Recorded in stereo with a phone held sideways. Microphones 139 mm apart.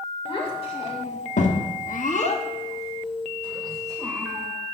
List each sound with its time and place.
0.2 s a child speaking: 40° left (ahead or behind), 2.5 m; by 4.5 s 5° right (ahead or behind), 3 m